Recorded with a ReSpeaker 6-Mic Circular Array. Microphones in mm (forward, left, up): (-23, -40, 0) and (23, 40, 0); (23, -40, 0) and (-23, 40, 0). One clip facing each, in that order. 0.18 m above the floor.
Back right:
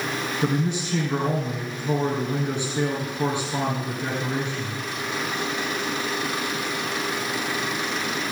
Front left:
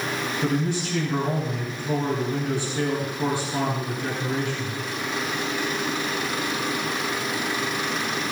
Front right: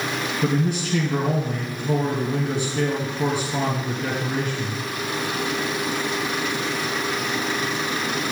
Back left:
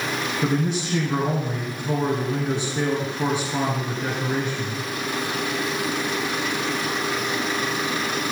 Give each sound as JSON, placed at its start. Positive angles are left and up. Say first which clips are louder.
{"t": 0.4, "sound": "a man speaking", "louder": "even, front right 1 dB", "azimuth_deg": 175, "distance_m": 2.5}